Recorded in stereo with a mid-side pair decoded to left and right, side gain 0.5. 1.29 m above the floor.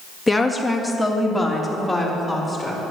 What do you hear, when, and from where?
0.3 s a woman speaking: 10° left, 1.9 m; by 2.8 s straight ahead, 4.5 m